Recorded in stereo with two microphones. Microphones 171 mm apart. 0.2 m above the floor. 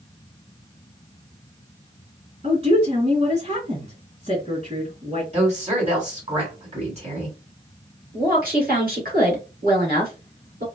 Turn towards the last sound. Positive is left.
turn(degrees=-60)  # may be behind; listen again after turning